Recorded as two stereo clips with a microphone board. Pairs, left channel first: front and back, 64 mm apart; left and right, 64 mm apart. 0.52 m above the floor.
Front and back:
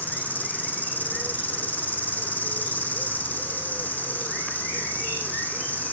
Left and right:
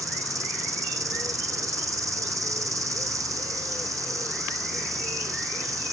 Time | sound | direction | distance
0.0 | an insect | 65° right | 1.9 m